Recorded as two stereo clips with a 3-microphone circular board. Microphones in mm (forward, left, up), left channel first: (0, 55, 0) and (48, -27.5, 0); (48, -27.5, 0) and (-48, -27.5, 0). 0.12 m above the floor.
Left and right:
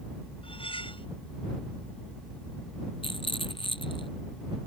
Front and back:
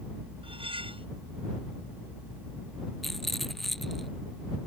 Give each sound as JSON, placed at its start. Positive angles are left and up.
{"t": 0.4, "sound": "cutlery clinking", "azimuth_deg": 150}
{"t": 3.0, "sound": "a rattle", "azimuth_deg": 90}